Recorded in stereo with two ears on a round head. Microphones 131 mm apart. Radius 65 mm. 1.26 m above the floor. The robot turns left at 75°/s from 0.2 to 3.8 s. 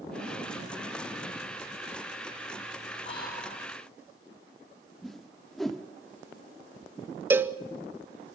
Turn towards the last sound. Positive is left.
turn(degrees=-15)  # may be behind; listen again after turning